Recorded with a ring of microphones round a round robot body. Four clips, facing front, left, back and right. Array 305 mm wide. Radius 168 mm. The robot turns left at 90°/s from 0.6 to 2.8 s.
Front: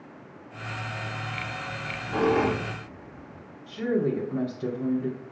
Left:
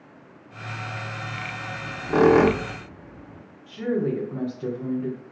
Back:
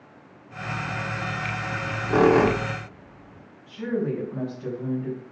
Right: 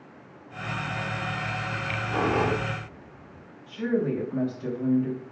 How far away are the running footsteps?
No running footsteps in this recording.